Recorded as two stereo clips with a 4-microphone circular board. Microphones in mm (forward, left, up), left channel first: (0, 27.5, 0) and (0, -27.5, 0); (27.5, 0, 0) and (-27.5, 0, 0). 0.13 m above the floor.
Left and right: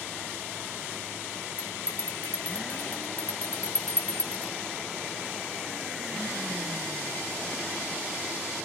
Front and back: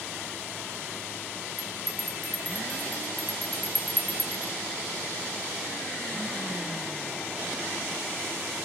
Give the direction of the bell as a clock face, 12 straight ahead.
8 o'clock.